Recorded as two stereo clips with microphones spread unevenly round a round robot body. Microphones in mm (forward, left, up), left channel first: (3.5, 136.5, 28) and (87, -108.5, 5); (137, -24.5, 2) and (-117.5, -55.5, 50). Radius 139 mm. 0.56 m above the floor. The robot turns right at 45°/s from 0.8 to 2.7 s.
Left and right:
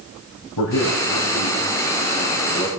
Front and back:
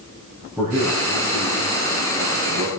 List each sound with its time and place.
0.6 s a man speaking: 105° left, 4 m; by 2.7 s 170° right, 4 m